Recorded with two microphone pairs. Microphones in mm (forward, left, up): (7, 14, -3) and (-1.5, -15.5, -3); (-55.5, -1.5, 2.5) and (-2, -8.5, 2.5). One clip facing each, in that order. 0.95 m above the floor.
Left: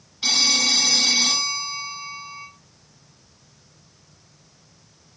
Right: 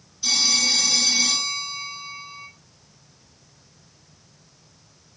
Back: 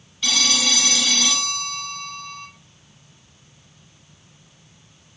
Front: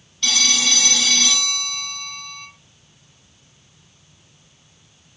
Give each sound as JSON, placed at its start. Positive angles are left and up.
{"t": 0.2, "sound": "a phone ringing", "azimuth_deg": 90, "distance_m": 0.6}